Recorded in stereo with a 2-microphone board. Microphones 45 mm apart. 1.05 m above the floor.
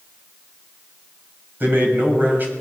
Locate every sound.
1.6 s a man speaking: 55° right (ahead or behind), 6 m